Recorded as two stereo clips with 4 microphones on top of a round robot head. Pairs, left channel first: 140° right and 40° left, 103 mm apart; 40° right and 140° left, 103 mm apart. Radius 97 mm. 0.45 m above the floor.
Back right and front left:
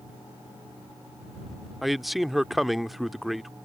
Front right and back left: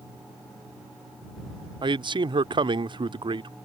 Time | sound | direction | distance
1.8 | a man speaking | 130° left | ?